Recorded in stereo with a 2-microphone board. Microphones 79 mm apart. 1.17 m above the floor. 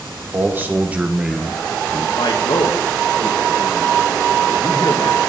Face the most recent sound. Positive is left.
turn(degrees=75)  # may be behind; listen again after turning